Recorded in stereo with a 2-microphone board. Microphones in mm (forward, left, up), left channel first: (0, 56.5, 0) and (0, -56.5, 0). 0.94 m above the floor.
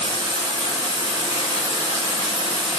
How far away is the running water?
About 1.6 m.